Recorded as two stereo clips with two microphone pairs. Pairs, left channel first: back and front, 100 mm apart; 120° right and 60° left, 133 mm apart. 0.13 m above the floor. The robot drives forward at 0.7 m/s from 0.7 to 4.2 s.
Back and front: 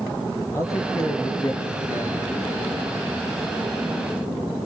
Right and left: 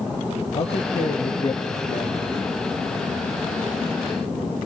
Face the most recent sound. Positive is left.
turn(degrees=-160)